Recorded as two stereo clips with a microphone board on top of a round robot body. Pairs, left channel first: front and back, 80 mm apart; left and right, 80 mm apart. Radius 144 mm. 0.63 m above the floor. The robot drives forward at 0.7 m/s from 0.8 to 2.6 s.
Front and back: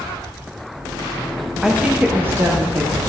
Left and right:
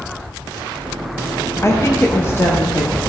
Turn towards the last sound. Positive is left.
turn(degrees=140)